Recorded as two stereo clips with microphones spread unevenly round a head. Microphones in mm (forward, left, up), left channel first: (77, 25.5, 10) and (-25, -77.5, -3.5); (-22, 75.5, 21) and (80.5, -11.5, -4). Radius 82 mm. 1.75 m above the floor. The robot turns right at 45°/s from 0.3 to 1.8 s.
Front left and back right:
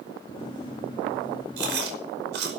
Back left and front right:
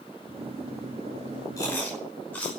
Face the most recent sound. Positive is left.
turn(degrees=-140)